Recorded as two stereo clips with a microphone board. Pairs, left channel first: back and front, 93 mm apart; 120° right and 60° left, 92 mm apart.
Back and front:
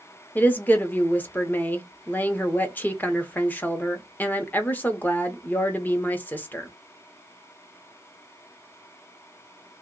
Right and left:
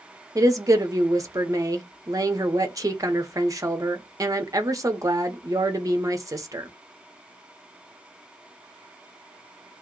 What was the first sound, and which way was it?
A woman speaking, 110° left.